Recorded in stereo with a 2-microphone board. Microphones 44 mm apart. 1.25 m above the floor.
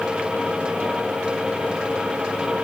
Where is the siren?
I don't hear a siren.